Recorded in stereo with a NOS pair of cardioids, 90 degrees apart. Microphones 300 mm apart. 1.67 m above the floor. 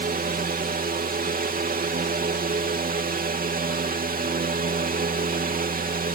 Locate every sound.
0.0 s a fan: 30° right